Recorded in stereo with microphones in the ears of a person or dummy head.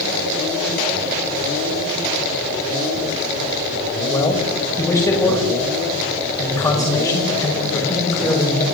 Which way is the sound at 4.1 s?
20° left (ahead or behind).